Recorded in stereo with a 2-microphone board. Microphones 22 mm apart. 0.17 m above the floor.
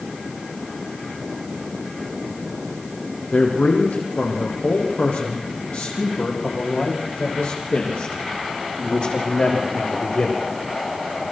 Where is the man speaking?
80° left, 6 m; by 10.4 s 55° left (ahead or behind), 7 m.